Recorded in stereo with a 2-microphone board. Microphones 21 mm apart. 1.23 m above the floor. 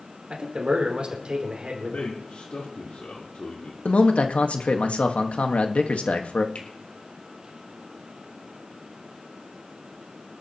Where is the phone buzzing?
I don't hear a phone buzzing.